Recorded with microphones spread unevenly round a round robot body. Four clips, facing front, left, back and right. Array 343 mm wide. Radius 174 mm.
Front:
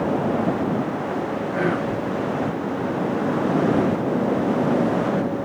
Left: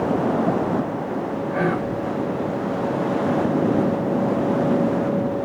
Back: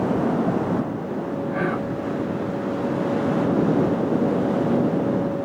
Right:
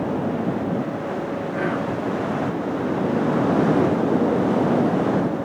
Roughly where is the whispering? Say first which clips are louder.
Left 2 dB, front 3 dB; left.